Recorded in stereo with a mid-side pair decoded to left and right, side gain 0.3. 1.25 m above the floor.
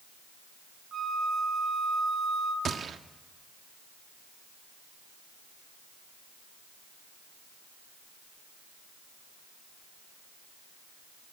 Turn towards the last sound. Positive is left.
turn(degrees=-65)